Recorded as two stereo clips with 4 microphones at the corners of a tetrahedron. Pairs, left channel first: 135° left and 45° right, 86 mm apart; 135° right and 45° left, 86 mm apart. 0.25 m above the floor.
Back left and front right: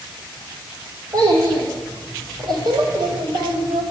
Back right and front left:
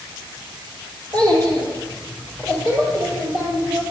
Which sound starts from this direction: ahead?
A child speaking, at 1.1 s.